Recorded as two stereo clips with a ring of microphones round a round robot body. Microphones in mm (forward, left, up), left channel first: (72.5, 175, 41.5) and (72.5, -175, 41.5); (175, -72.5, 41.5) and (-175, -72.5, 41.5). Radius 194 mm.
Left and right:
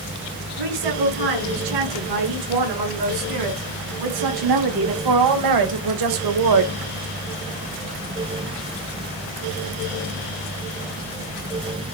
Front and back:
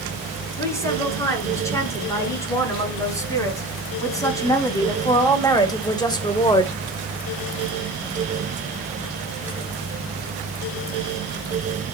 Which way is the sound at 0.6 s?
80° right.